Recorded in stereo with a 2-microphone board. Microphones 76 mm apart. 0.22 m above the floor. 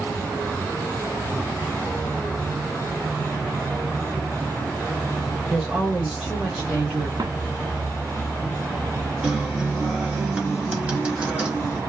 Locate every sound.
5.5 s a woman speaking: centre (ahead or behind), 1.3 m; by 7.1 s 25° right (ahead or behind), 1.3 m
7.2 s footsteps: 60° right (ahead or behind), 1.4 m
9.2 s a guitar: 15° right (ahead or behind), 0.9 m